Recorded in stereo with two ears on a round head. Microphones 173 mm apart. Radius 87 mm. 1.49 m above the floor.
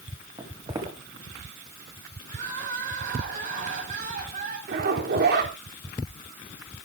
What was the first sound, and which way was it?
Footsteps, 20° right (ahead or behind).